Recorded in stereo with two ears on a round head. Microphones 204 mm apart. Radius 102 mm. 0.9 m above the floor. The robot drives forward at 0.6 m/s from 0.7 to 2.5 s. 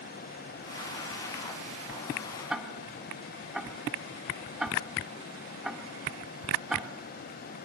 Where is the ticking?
5° right (ahead or behind), 2.5 m.